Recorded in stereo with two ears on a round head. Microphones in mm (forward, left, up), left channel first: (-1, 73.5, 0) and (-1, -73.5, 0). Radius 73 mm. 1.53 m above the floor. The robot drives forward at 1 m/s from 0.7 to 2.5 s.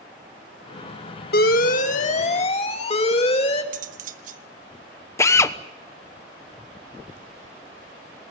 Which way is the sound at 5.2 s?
15° left (ahead or behind).